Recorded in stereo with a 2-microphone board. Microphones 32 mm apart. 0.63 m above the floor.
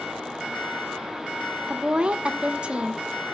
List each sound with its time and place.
1.7 s a woman speaking: 35° right (ahead or behind), 1.3 m